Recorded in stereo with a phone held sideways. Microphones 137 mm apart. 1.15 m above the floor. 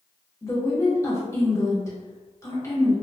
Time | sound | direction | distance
0.4 | a woman speaking | 25° left (ahead or behind) | 1.1 m